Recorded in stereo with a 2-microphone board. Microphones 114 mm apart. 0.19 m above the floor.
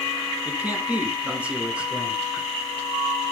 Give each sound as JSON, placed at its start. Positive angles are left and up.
{"t": 0.5, "sound": "a man speaking", "side_deg": -15, "distance_m": 1.7}